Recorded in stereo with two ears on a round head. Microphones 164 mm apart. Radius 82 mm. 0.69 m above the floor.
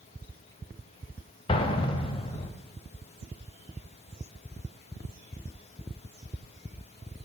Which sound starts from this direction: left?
An explosion, at 1.5 s.